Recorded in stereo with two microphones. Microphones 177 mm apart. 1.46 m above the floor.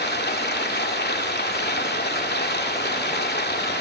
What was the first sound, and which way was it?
Running water, 70° left (ahead or behind).